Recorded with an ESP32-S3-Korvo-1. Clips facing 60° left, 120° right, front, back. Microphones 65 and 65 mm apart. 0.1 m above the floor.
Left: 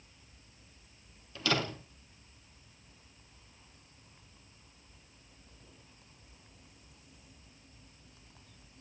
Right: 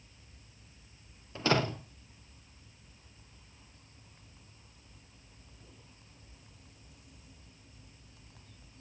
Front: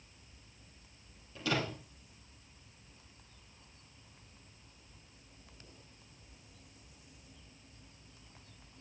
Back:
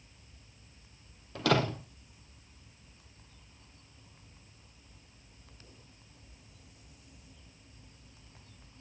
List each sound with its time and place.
1.4 s a door slam: 175° right, 2 m